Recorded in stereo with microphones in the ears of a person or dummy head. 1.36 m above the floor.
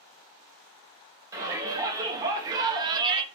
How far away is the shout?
About 1.7 m.